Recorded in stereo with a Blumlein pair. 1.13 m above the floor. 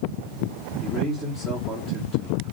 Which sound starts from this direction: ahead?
A man speaking, at 0.8 s.